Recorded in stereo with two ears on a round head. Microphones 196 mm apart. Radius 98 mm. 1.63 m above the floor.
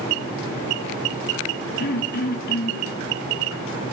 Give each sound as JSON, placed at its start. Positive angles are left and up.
{"t": 1.8, "sound": "throat clearing", "side_deg": 45, "distance_m": 0.9}